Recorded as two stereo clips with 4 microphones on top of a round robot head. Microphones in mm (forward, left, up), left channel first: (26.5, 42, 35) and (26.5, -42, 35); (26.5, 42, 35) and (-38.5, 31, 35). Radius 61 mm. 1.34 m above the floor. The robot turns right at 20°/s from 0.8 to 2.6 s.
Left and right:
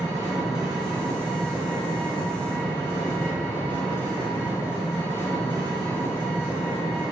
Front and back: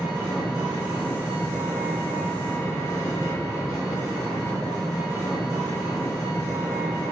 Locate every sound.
0.0 s an engine running: straight ahead, 1.7 m; by 7.1 s 35° left, 1.7 m